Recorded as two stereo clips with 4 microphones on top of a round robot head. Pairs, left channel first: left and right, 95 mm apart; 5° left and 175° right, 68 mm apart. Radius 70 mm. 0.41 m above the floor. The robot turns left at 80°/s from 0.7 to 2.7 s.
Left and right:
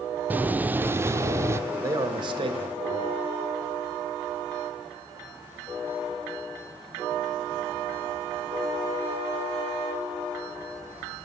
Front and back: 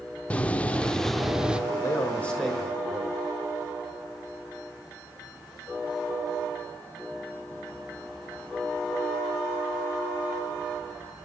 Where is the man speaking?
30° right, 1.7 m; by 3.2 s 100° right, 1.7 m.